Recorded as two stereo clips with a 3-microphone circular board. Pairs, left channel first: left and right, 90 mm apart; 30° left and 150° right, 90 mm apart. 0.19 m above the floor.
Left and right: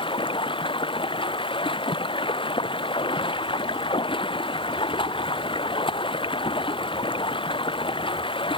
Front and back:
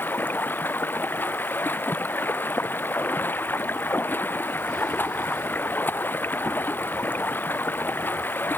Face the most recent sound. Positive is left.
turn(degrees=100)